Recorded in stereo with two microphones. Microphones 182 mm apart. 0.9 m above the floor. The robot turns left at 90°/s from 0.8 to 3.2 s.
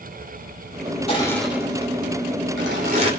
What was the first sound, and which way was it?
Crushing, 35° left.